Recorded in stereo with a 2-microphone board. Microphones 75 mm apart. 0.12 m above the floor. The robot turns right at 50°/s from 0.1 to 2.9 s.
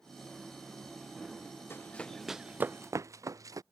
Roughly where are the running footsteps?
Left.